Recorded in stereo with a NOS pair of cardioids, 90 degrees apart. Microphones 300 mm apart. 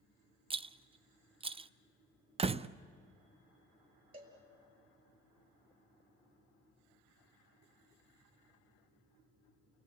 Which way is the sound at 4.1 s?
30° right.